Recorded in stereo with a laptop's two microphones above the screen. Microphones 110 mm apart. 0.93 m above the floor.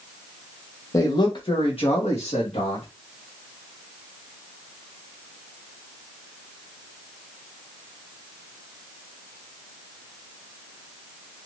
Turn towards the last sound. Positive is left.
turn(degrees=70)  # may be behind; listen again after turning